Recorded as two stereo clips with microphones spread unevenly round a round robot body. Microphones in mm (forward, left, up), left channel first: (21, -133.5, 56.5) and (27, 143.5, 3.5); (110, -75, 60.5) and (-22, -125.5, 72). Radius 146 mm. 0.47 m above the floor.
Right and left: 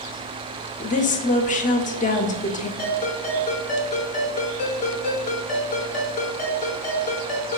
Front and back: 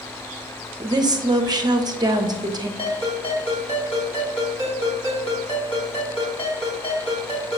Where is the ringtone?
25° right, 3.5 m.